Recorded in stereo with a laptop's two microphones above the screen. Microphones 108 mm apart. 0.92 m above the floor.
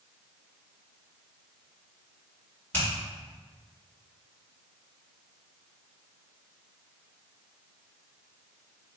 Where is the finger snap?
20° left (ahead or behind), 1.6 m.